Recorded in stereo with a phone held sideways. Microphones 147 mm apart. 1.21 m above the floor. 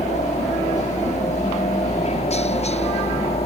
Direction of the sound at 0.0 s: 50° left (ahead or behind).